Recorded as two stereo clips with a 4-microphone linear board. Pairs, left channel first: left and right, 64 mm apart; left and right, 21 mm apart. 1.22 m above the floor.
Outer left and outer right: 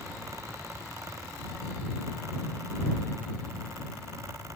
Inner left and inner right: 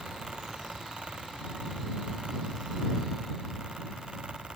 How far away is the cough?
I don't hear a cough.